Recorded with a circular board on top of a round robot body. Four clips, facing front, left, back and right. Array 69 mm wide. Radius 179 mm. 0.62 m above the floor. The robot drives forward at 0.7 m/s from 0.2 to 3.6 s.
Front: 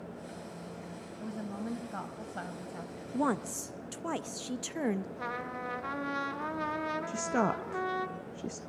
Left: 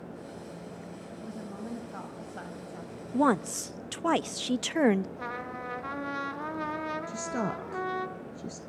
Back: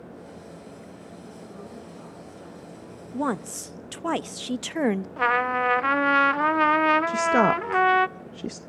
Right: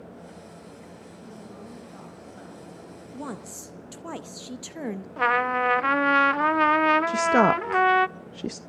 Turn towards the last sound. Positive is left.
turn(degrees=-120)